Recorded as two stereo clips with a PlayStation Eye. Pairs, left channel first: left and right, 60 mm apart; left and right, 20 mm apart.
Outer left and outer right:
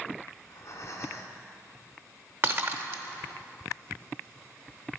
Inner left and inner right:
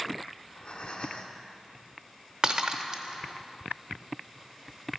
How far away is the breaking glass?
About 0.8 m.